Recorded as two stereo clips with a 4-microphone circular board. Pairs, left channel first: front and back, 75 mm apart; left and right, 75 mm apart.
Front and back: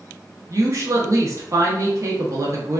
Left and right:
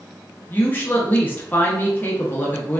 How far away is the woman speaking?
About 0.6 m.